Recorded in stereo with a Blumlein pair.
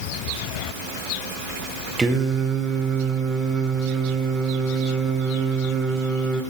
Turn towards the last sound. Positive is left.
turn(degrees=-10)